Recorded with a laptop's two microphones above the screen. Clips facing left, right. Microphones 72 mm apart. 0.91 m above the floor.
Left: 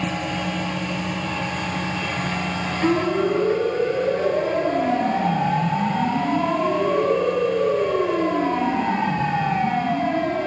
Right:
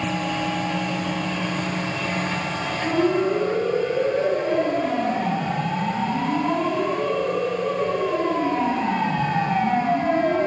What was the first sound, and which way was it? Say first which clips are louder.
A siren: left 1 dB; 80° left.